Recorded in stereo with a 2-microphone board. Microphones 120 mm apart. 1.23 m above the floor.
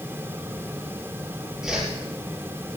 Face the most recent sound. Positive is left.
turn(degrees=-5)  # may be behind; listen again after turning